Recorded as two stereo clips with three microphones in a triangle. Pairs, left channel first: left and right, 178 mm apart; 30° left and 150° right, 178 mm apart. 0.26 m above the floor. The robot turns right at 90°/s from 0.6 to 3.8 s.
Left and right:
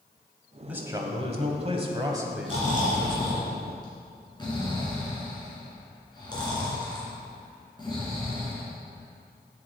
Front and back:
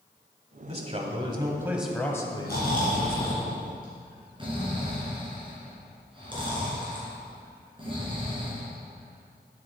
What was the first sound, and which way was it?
A man speaking, 170° right.